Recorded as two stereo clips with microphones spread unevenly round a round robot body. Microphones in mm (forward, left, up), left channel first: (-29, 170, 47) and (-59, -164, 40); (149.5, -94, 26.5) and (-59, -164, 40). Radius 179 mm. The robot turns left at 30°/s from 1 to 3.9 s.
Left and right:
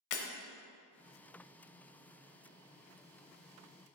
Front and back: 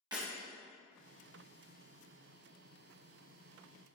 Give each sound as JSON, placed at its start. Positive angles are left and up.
{"t": 0.1, "sound": "breaking glass", "azimuth_deg": 120, "distance_m": 0.8}